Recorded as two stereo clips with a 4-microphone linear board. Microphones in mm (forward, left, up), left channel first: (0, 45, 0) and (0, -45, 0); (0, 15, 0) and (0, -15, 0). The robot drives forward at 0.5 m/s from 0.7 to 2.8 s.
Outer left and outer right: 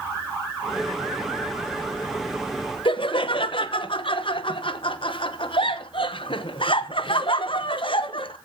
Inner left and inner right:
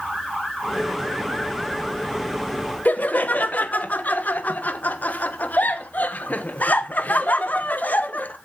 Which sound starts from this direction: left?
Laughter, at 2.9 s.